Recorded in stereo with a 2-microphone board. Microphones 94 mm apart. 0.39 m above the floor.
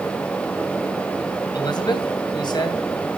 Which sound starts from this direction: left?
A man speaking, at 1.5 s.